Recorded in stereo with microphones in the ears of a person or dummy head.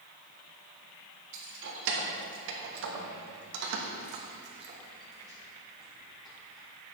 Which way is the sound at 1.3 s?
70° right (ahead or behind).